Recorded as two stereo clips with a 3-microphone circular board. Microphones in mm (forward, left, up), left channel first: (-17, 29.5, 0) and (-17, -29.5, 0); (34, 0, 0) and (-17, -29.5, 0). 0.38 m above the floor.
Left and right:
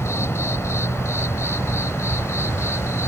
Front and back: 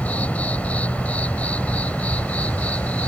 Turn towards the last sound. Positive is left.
turn(degrees=85)